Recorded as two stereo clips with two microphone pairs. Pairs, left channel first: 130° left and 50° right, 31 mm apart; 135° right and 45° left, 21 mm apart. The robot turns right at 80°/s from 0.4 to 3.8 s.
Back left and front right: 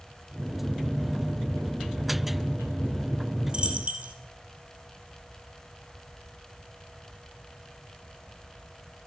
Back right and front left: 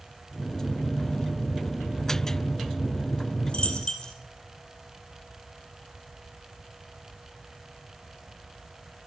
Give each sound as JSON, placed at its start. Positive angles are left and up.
{"t": 3.5, "sound": "a dropped coin", "azimuth_deg": -110, "distance_m": 2.0}